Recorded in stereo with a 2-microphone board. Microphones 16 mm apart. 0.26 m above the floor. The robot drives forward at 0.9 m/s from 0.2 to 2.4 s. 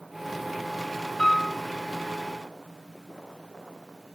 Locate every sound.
1.2 s a piano: 55° left (ahead or behind), 3 m